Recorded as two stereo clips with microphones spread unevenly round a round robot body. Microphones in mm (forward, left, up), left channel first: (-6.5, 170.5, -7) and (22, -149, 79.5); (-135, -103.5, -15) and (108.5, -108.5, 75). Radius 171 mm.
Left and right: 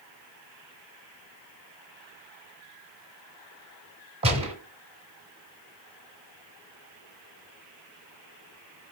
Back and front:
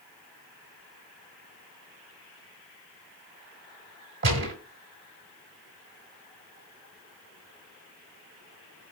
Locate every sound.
4.2 s a gunshot: 20° right, 1.1 m